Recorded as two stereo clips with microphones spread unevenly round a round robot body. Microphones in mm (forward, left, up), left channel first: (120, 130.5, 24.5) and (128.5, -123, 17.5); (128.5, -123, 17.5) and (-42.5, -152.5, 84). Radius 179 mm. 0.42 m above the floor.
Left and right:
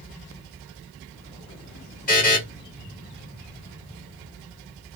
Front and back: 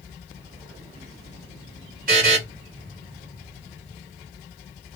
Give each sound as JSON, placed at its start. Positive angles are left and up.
{"t": 2.1, "sound": "a buzzer", "azimuth_deg": 140, "distance_m": 1.4}